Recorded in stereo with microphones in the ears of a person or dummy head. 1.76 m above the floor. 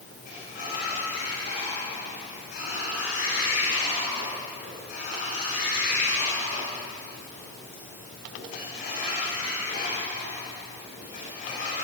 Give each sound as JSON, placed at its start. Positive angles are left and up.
{"t": 0.2, "sound": "a sliding door", "side_deg": 50, "distance_m": 9.5}